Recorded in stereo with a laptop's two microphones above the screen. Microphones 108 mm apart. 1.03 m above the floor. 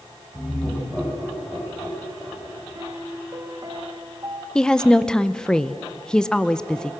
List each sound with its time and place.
0.3 s laughter: 25° left (ahead or behind), 7.5 m; by 2.9 s 15° left (ahead or behind), 6 m
2.8 s a piano: 35° right (ahead or behind), 1.2 m
4.5 s a woman speaking: 5° left (ahead or behind), 0.6 m